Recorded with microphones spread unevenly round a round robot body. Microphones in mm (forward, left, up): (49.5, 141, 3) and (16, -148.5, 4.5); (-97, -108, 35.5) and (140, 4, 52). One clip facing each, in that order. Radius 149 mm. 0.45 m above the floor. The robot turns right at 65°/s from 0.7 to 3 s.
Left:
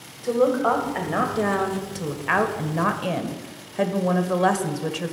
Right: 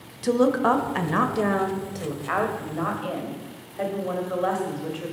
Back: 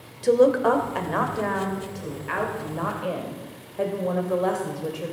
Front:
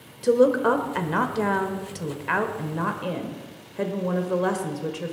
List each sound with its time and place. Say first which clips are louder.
0.2 s a woman speaking: even, back 1 dB; 55° right, 1.4 m; by 5.1 s 95° left, 1.4 m